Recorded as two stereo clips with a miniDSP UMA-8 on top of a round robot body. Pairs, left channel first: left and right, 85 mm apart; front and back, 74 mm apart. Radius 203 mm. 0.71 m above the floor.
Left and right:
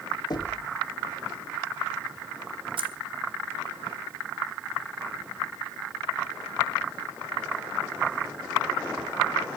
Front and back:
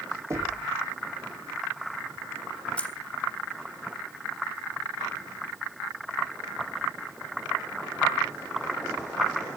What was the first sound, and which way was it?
Knocking, 130° left.